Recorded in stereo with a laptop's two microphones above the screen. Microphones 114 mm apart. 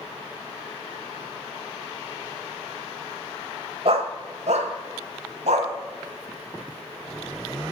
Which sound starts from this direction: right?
A dog barking, at 3.9 s.